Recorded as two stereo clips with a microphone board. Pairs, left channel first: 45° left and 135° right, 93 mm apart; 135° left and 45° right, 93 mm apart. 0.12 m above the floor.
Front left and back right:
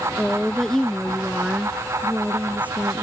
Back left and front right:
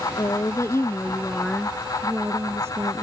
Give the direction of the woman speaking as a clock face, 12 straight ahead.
8 o'clock.